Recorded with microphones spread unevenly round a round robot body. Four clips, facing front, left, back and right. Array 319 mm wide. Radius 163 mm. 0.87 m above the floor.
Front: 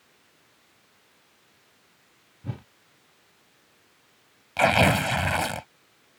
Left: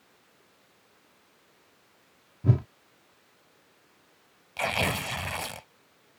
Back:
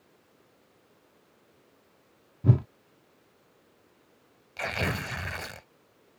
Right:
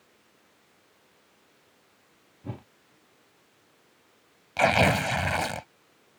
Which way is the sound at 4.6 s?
35° right.